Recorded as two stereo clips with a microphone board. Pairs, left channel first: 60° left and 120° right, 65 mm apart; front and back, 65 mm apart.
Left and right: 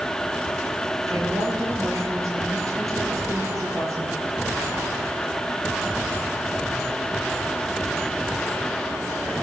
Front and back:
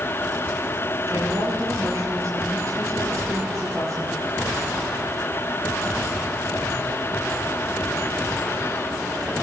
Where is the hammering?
No hammering in this recording.